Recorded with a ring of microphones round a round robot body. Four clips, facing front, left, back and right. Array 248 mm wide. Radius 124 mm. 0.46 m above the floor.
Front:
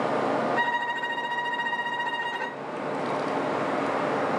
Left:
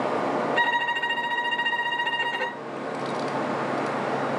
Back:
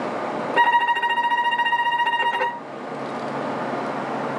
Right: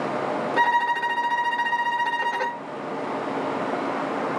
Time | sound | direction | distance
0.6 | a violin | 165° right | 0.6 m